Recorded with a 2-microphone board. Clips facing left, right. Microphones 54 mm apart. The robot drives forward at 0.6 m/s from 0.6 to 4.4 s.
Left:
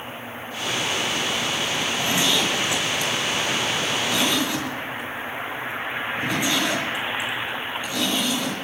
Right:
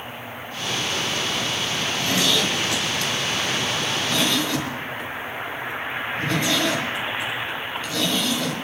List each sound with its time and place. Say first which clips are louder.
1.8 s a zipper: right 1 dB; 20° left (ahead or behind), 2 m; by 8.5 s 10° left (ahead or behind), 3.5 m